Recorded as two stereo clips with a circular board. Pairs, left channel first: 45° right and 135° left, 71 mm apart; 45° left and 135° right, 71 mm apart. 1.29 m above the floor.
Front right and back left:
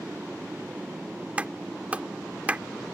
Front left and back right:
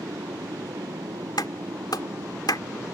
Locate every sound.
0.0 s a motorcycle: 155° right; by 2.9 s 150° right
1.4 s a clap: 65° left